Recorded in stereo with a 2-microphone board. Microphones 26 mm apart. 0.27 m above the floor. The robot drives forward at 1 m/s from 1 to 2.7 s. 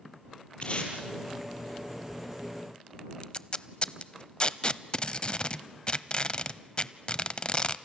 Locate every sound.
0.6 s tape being pulled: 45° left (ahead or behind), 4.5 m
3.2 s tape being pulled: 45° left (ahead or behind), 0.6 m